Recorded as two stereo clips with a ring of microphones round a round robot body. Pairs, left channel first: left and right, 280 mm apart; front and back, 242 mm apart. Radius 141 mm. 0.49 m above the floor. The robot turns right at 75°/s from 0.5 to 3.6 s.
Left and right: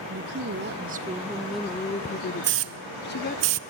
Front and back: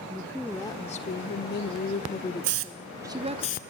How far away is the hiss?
About 1.0 m.